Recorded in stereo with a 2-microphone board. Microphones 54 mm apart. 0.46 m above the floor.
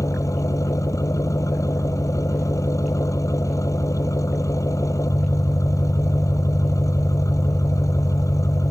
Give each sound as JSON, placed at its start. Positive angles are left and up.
{"t": 0.0, "sound": "an engine running", "side_deg": 75}